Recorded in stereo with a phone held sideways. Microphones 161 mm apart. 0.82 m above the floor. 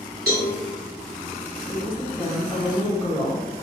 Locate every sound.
0.3 s a cowbell: 75° right (ahead or behind), 1.2 m
1.7 s a woman speaking: 10° left (ahead or behind), 0.6 m